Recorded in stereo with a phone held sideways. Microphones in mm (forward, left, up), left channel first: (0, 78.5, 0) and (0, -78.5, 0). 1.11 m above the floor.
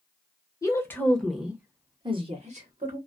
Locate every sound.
0.6 s a woman speaking: 20° left (ahead or behind), 1.0 m; by 3.0 s 55° right (ahead or behind), 1.0 m